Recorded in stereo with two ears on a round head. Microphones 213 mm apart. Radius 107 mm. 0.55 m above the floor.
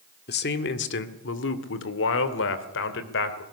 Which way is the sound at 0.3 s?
45° left (ahead or behind).